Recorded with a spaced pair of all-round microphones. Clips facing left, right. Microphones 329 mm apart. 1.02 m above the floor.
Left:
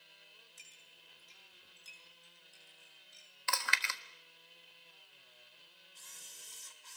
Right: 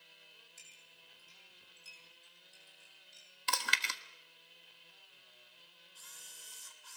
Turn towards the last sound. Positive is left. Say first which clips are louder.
# left 1 dB
turn(degrees=30)  # may be behind; listen again after turning